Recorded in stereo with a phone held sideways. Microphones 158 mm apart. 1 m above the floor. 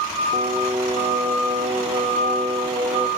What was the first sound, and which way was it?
Singing, 40° right (ahead or behind).